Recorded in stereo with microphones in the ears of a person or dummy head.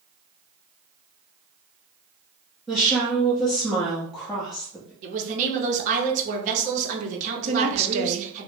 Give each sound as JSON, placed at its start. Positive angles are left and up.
{"t": 2.7, "sound": "a woman speaking", "side_deg": 0, "distance_m": 0.8}
{"t": 5.0, "sound": "a woman speaking", "side_deg": -45, "distance_m": 0.8}
{"t": 7.5, "sound": "a woman speaking", "side_deg": -35, "distance_m": 0.6}